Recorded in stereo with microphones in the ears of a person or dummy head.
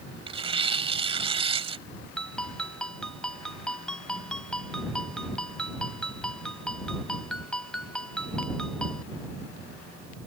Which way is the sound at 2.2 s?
5° left (ahead or behind).